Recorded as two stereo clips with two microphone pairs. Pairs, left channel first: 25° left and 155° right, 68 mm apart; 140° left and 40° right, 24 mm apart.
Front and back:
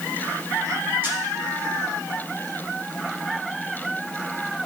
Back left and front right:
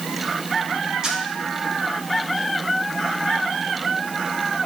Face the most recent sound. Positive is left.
turn(degrees=-95)